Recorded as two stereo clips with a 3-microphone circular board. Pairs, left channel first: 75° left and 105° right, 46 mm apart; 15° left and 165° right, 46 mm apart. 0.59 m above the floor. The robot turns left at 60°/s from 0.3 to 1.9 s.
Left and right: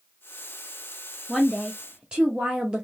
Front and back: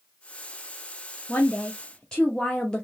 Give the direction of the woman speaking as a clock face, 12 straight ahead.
12 o'clock.